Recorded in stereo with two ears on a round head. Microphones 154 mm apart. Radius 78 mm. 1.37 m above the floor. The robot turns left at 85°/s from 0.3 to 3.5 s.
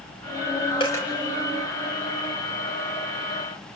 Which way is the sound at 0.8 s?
30° left (ahead or behind).